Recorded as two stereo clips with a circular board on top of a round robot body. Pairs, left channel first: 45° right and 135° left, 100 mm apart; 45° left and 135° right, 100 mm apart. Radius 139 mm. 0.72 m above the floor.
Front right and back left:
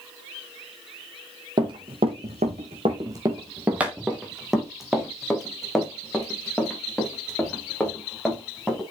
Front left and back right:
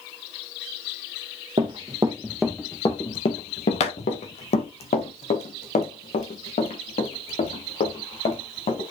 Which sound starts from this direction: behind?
Running footsteps, at 1.6 s.